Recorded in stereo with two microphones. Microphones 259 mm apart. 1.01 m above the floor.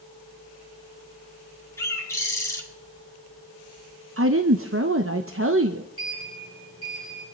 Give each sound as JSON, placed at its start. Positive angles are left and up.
{"t": 1.8, "sound": "a bird", "side_deg": 10, "distance_m": 2.0}
{"t": 4.2, "sound": "a woman speaking", "side_deg": -60, "distance_m": 0.8}
{"t": 6.0, "sound": "a sliding door", "side_deg": -60, "distance_m": 5.0}